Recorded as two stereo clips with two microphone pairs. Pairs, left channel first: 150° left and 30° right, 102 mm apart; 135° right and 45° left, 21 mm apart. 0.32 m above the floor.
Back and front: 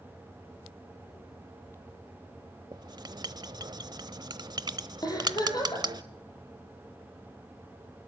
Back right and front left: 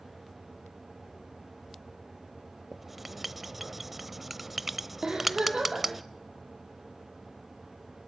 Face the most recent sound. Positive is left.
turn(degrees=100)